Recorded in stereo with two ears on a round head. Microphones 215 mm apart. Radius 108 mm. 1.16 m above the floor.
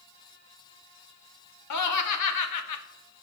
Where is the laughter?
85° left, 1.9 m.